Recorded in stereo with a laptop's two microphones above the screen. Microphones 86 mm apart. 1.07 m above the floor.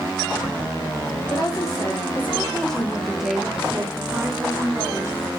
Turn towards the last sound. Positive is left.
turn(degrees=-25)  # may be behind; listen again after turning